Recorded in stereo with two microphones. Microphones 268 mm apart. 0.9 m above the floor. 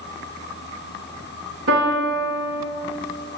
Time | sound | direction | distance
1.7 | a piano | 55° right (ahead or behind) | 1.0 m